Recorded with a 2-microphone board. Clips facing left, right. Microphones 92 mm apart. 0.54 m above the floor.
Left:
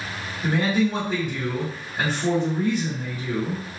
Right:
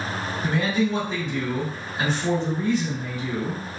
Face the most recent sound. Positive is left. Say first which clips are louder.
# left 2 dB
turn(degrees=40)  # may be behind; listen again after turning